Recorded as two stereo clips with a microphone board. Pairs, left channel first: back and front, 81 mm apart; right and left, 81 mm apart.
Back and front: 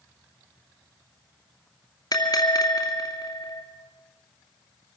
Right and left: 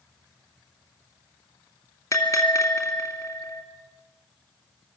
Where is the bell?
140° right, 2.5 m.